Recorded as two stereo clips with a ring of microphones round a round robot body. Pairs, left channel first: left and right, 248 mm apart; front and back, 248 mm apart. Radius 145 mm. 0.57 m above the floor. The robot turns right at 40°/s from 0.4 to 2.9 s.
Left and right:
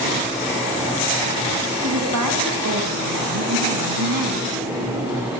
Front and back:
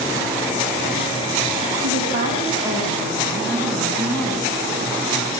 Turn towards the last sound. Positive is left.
turn(degrees=-85)